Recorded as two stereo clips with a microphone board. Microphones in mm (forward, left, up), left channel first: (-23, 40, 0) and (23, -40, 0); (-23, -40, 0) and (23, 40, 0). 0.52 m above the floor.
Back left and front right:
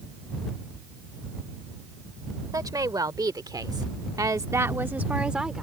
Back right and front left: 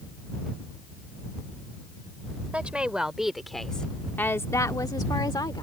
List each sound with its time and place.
2.5 s a woman speaking: 15° right; by 5.6 s 145° right